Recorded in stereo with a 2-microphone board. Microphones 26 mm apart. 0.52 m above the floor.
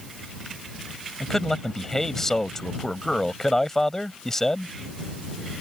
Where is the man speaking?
15° left (ahead or behind).